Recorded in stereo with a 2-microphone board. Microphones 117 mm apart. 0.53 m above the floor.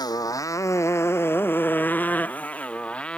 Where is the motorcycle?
35° left (ahead or behind); by 3.2 s 10° left (ahead or behind).